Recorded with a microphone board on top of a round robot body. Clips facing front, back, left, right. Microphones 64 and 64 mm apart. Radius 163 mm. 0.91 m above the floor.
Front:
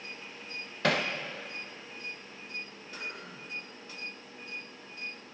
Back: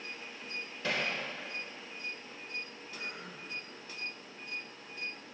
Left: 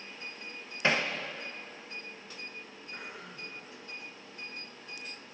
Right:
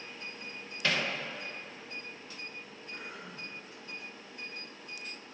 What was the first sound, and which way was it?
Hammering, 25° left.